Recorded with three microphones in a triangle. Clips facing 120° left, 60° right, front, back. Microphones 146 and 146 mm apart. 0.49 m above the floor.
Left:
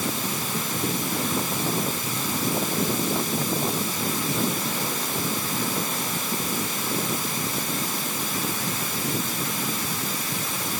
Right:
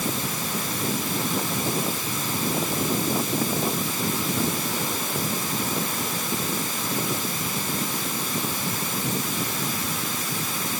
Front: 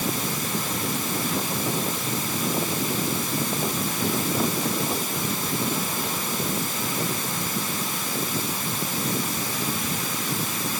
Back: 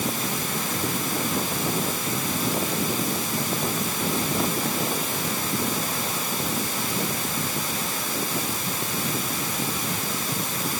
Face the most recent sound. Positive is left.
No sound to turn to.